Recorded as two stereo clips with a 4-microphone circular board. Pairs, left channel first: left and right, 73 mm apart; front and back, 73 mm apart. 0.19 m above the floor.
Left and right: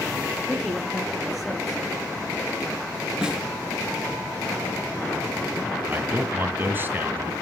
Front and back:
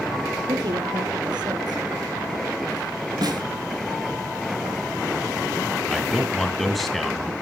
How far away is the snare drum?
About 2.5 m.